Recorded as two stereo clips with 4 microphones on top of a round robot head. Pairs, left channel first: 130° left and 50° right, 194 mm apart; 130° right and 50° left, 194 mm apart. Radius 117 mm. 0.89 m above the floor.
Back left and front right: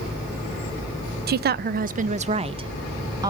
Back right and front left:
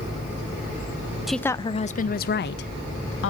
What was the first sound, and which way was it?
A woman speaking, 40° right.